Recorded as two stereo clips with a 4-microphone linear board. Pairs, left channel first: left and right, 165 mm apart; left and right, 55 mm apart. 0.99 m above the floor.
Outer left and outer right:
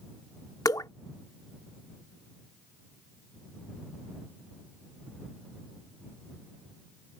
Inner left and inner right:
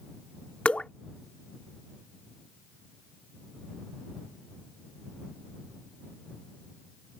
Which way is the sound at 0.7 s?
20° left (ahead or behind).